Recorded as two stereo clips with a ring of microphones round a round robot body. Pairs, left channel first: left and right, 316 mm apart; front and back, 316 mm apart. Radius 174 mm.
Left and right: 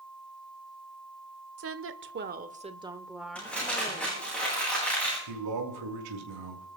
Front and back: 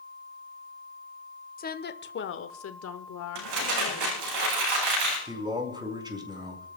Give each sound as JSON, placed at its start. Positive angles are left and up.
{"t": 1.6, "sound": "a woman speaking", "azimuth_deg": -60, "distance_m": 1.2}
{"t": 3.4, "sound": "crumpling", "azimuth_deg": 175, "distance_m": 8.5}
{"t": 5.3, "sound": "a man speaking", "azimuth_deg": -105, "distance_m": 5.5}